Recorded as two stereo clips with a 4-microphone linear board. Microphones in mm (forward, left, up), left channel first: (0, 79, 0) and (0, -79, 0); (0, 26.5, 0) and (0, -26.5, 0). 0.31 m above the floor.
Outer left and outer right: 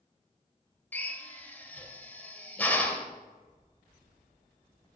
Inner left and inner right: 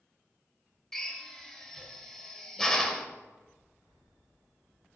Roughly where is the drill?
Centre.